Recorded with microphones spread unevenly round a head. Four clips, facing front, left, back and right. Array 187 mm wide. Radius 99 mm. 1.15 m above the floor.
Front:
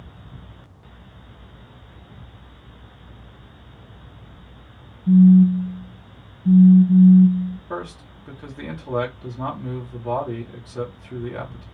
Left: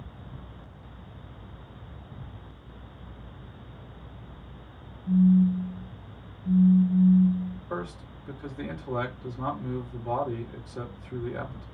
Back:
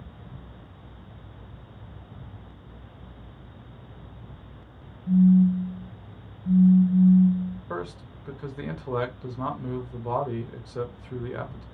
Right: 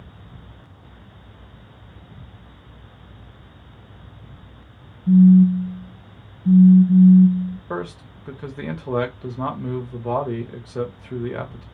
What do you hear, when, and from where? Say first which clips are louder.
5.1 s a phone buzzing: right 9 dB, front 6 dB; 45° right, 0.6 m
7.7 s a man speaking: right 6 dB, front 2 dB; 85° right, 1.5 m